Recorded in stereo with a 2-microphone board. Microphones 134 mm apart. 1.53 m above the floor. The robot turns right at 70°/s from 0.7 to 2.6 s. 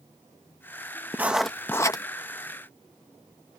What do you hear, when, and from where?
1.1 s writing: 20° right; by 2.0 s 40° left